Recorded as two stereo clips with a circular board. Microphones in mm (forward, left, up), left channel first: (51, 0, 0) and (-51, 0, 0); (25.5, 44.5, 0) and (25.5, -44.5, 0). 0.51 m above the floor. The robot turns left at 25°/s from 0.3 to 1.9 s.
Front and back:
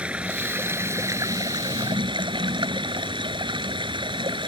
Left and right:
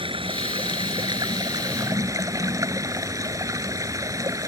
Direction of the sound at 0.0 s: 100° right.